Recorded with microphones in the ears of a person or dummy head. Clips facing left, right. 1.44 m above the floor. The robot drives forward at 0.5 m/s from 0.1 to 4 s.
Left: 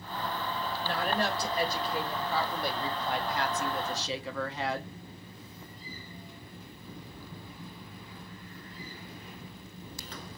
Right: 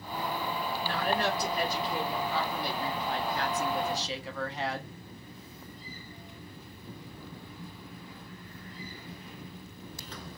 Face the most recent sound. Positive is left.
turn(degrees=75)  # may be behind; listen again after turning